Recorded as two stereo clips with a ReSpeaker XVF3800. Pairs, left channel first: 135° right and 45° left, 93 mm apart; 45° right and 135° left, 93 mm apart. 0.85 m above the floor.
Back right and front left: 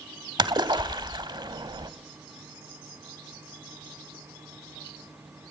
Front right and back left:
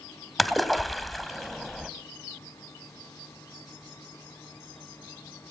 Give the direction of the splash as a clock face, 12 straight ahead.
11 o'clock.